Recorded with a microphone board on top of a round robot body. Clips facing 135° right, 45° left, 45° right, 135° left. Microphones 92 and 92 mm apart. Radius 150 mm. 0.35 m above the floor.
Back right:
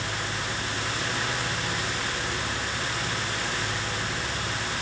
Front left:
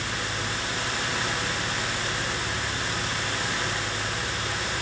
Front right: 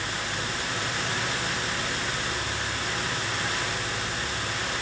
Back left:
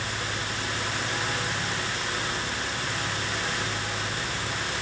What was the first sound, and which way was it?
Only background noise.